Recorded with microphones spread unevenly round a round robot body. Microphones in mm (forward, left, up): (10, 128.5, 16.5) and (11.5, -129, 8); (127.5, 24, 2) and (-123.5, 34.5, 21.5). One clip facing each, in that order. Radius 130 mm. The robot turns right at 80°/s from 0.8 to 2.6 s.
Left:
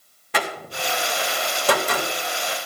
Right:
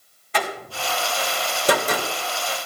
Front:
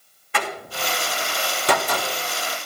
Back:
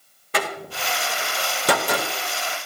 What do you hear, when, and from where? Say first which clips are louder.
0.3 s a door slam: even, back 1 dB; 125° left, 2 m; by 2.1 s 130° right, 2 m